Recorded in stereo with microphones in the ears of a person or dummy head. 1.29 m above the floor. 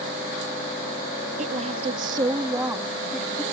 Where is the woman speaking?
45° right (ahead or behind); by 3.4 s 5° left (ahead or behind).